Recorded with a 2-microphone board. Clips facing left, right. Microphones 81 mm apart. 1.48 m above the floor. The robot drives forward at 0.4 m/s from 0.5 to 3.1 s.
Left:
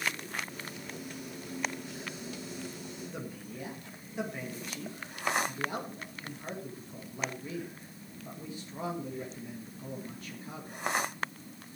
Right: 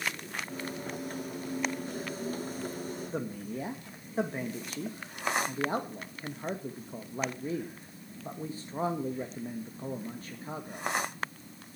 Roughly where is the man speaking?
Right.